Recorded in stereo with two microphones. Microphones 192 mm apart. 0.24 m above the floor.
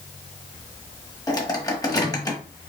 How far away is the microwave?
About 1.3 m.